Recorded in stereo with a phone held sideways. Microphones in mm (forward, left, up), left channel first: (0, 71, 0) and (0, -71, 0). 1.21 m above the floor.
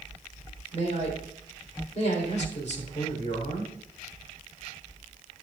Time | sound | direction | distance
0.7 | a man speaking | 55° left (ahead or behind) | 4 m